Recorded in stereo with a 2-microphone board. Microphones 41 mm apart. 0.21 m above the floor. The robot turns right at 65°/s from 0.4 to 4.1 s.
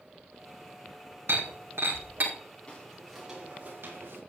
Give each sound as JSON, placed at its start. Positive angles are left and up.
{"t": 1.3, "sound": "breaking glass", "side_deg": -70, "distance_m": 4.0}
{"t": 2.7, "sound": "footsteps", "side_deg": 30, "distance_m": 4.5}